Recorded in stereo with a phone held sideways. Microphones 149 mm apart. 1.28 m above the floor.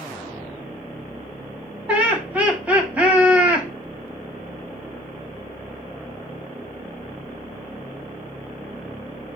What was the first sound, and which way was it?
Laughter, 10° right (ahead or behind).